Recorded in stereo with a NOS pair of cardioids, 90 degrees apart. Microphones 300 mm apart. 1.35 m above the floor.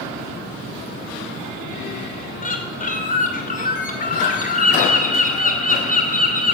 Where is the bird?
30° left, 2.5 m.